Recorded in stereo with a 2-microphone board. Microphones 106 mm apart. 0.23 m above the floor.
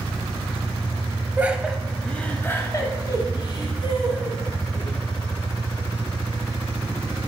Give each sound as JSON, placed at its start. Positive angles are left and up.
{"t": 1.4, "sound": "laughter", "side_deg": -15, "distance_m": 1.0}